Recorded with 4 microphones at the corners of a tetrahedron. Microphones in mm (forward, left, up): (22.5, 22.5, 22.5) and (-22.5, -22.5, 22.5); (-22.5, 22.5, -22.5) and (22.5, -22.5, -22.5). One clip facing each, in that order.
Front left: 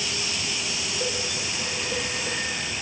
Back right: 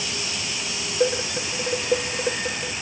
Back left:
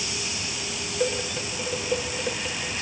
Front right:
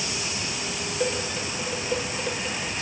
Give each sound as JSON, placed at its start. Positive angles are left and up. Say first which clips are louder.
{"t": 1.0, "sound": "dishes clattering", "louder": "back right 10 dB, back left 1 dB", "azimuth_deg": -140, "distance_m": 0.9}